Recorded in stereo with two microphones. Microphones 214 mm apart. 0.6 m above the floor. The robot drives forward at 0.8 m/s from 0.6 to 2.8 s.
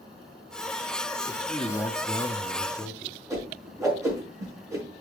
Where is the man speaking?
10° left (ahead or behind), 1.1 m; by 3.2 s 15° left (ahead or behind), 0.9 m.